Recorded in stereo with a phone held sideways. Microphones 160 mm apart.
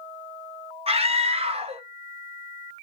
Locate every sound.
0.9 s a scream: 40° right (ahead or behind), 1.0 m